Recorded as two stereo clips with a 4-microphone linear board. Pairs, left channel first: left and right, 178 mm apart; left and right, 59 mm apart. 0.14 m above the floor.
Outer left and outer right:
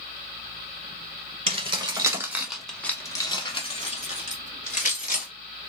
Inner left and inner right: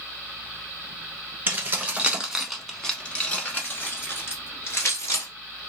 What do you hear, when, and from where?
1.5 s keys jangling: 35° right (ahead or behind), 1.1 m; by 5.3 s 55° left (ahead or behind), 1.7 m